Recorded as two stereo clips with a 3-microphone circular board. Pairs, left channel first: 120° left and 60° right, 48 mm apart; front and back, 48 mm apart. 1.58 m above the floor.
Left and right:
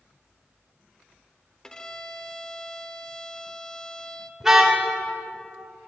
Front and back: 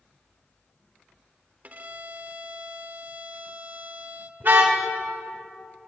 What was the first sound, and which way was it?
A violin, straight behind.